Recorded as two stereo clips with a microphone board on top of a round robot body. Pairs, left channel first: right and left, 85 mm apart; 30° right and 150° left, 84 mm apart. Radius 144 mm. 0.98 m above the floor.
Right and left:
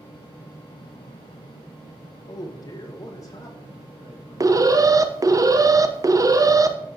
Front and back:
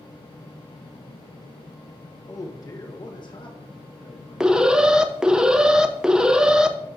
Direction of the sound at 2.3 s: 70° right.